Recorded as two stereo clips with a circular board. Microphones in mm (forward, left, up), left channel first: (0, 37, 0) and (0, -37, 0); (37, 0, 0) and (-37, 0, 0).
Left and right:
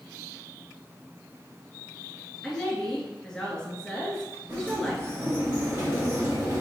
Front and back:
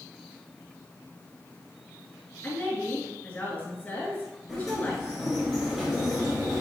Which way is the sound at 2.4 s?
20° left.